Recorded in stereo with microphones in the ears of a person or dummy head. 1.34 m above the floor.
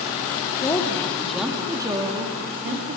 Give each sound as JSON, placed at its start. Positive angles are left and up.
{"t": 0.6, "sound": "a woman speaking", "side_deg": 20, "distance_m": 2.5}